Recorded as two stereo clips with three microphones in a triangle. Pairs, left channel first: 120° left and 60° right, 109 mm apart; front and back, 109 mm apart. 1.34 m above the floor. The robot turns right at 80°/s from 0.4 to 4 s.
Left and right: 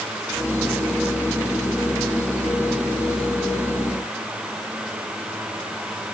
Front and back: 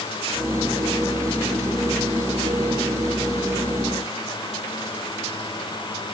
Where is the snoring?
No snoring in this recording.